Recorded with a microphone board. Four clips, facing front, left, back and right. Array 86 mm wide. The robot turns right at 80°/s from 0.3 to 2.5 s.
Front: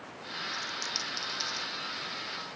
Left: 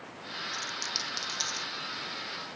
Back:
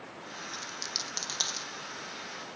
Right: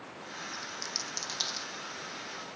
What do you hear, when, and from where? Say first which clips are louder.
0.5 s a dropped coin: left 3 dB, front 3 dB; 120° left; by 1.7 s 150° right